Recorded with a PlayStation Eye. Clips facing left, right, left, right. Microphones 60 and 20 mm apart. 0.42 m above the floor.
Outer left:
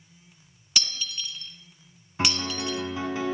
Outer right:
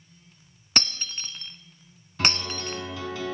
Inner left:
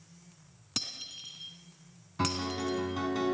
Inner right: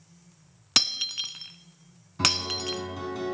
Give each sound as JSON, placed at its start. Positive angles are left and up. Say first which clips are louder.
{"t": 0.8, "sound": "breaking glass", "louder": "outer right 2 dB, inner right 13 dB", "side_deg": -45, "distance_m": 1.5}
{"t": 2.2, "sound": "a piano", "louder": "even, inner right 6 dB", "side_deg": 25, "distance_m": 4.0}